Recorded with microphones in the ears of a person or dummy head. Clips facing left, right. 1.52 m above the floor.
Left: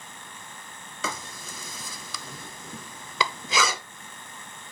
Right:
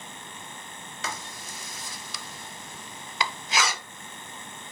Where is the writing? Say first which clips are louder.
Left 3 dB; 60° left (ahead or behind), 0.5 m.